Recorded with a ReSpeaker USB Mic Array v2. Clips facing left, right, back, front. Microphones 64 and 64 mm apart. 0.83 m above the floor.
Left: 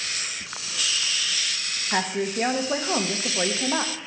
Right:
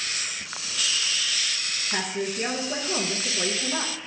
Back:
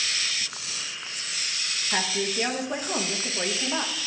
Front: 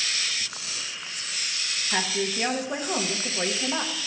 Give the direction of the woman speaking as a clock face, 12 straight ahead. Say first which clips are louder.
Left 4 dB, even; 9 o'clock.